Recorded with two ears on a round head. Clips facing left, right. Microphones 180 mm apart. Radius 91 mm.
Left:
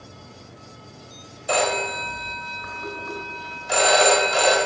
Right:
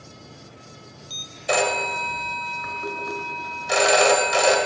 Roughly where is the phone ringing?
Right.